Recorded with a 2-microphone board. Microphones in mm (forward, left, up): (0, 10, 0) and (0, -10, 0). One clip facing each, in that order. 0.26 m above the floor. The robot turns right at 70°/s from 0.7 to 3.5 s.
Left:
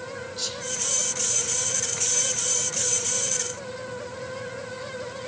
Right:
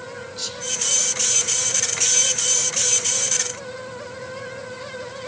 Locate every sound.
0.4 s whispering: 5° right (ahead or behind), 0.9 m